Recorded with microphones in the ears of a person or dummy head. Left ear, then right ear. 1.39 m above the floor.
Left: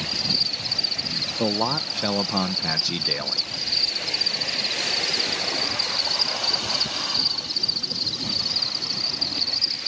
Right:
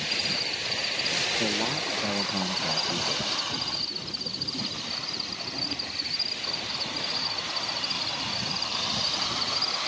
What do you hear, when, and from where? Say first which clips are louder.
0.0 s an insect: left 4 dB; 45° left (ahead or behind)
1.4 s a man speaking: left 4 dB; 55° left (ahead or behind)